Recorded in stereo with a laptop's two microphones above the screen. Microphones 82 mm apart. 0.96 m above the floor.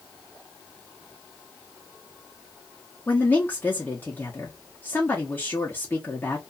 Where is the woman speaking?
25° left (ahead or behind), 0.8 m.